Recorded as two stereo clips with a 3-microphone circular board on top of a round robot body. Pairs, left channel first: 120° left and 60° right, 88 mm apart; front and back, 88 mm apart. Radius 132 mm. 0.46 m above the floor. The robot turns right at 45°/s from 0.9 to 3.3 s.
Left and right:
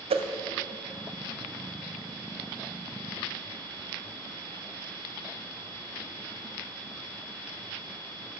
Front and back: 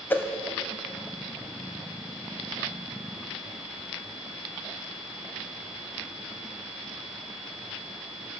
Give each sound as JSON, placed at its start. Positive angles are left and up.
{"t": 0.1, "sound": "a whoosh", "azimuth_deg": -65, "distance_m": 0.5}